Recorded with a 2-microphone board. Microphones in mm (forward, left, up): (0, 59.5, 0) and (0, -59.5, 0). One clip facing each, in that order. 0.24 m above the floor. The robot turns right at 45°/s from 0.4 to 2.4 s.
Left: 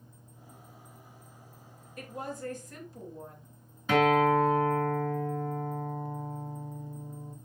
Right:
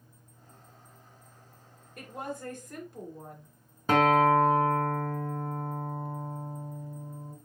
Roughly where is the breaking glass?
I don't hear breaking glass.